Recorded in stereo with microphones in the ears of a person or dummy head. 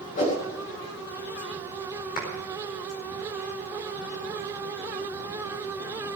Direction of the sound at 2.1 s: 45° left (ahead or behind).